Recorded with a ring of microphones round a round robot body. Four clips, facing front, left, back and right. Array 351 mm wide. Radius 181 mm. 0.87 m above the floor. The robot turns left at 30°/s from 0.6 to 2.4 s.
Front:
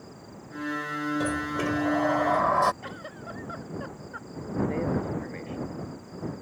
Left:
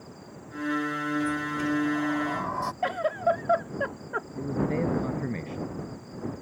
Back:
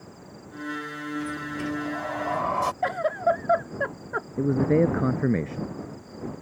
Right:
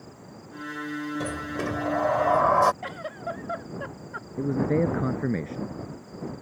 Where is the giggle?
145° left.